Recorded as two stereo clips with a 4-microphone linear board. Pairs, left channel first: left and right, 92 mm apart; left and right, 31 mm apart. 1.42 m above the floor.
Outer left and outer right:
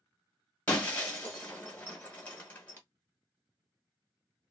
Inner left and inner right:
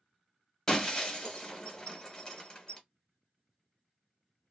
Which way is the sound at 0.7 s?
15° left (ahead or behind).